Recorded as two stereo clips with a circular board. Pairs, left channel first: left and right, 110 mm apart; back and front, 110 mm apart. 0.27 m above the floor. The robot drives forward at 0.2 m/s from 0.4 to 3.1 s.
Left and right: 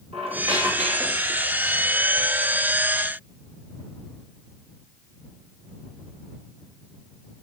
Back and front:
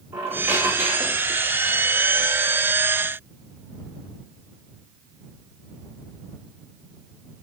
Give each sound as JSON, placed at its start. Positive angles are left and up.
{"t": 0.1, "sound": "a squeak", "azimuth_deg": -70, "distance_m": 4.5}